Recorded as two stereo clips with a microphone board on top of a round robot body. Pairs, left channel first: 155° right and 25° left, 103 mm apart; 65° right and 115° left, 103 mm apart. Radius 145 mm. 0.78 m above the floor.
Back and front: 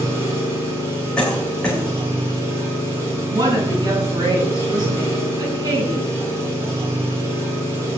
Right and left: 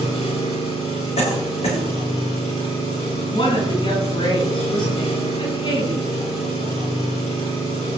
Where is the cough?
75° right, 4 m.